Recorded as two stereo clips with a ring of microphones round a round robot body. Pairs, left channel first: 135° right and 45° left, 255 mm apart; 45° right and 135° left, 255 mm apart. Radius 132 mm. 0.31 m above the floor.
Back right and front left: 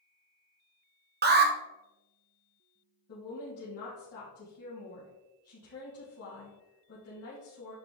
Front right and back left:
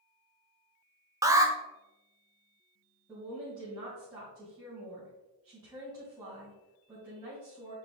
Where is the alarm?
65° left, 1.1 m.